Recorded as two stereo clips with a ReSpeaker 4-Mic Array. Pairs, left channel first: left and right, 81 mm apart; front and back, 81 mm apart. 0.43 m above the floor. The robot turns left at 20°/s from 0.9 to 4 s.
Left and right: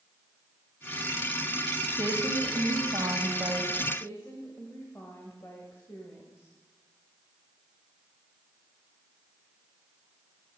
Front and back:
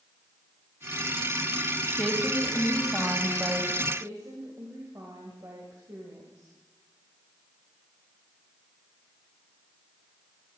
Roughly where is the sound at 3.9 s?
Behind left.